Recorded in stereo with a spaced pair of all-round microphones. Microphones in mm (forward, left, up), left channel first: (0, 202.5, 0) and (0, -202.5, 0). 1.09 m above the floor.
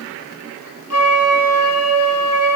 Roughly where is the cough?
No cough in this recording.